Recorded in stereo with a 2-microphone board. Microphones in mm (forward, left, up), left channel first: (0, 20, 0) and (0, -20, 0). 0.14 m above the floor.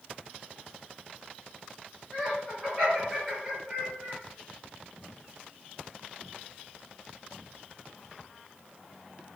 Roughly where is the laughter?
Left.